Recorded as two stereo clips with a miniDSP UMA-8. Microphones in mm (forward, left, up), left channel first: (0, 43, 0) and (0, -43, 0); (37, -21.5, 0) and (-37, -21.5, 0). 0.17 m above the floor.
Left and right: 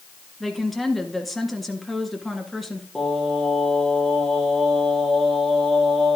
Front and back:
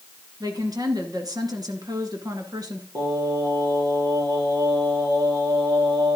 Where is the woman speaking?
Straight behind, 2 m.